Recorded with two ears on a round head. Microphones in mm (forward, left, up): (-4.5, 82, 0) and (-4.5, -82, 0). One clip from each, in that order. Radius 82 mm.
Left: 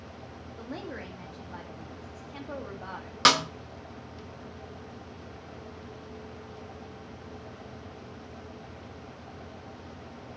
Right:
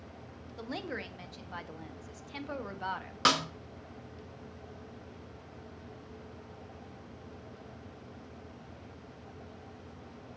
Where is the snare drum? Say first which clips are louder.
Left 6 dB; 20° left (ahead or behind), 0.7 m.